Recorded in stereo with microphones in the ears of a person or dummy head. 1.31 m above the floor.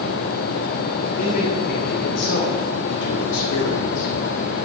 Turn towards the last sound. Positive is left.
turn(degrees=85)